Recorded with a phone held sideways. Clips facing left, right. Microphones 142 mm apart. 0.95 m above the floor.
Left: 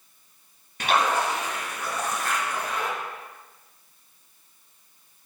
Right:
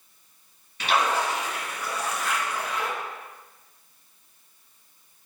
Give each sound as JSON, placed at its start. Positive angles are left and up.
{"t": 0.8, "sound": "a splash", "side_deg": 50, "distance_m": 1.2}